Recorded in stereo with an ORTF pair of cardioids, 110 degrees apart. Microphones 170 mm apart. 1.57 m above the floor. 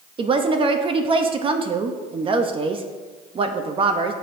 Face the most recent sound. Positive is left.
turn(degrees=-30)